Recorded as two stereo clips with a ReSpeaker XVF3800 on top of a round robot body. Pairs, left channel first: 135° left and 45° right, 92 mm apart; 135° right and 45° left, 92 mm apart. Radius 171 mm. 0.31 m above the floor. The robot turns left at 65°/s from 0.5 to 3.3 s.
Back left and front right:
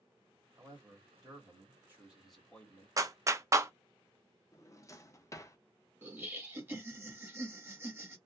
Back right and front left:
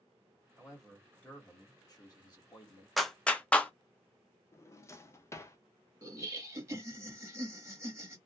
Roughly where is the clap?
Ahead right.